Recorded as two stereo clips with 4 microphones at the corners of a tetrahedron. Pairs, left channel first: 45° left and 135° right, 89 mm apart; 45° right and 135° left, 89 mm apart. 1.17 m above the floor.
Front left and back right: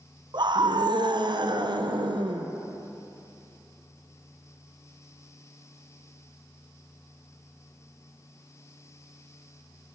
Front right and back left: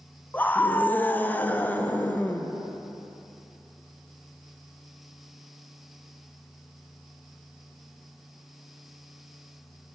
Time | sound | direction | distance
0.3 | a scream | 115° right | 0.6 m